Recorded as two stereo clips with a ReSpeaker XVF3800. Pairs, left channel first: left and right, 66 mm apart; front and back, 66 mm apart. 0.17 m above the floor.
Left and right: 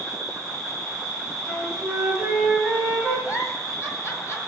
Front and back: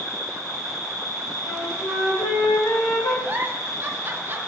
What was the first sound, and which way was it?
An insect, 5° left.